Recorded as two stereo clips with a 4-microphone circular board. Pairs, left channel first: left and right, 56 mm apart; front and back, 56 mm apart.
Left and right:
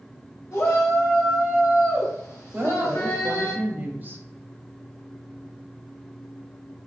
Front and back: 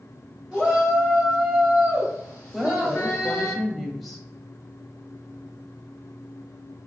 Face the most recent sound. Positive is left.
turn(degrees=-95)